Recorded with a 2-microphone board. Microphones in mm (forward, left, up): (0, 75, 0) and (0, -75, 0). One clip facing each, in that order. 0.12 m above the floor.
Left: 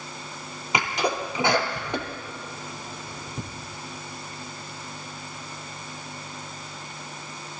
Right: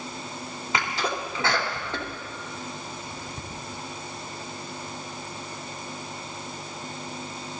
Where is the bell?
I don't hear a bell.